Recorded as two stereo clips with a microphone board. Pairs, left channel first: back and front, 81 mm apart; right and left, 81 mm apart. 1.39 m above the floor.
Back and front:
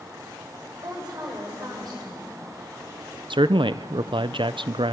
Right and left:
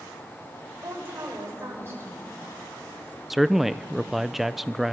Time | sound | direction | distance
0.8 | a woman speaking | 35° left | 6.5 m
3.3 | a man speaking | 5° left | 0.5 m